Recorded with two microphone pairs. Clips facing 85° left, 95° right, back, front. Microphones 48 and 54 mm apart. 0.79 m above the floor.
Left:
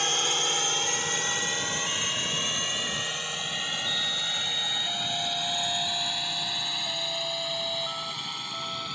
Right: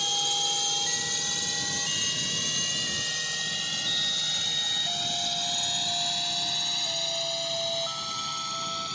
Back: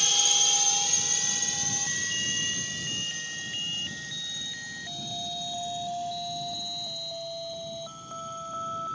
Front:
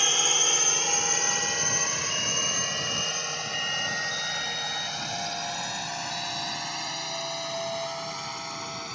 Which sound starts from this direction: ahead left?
A drone, at 0.0 s.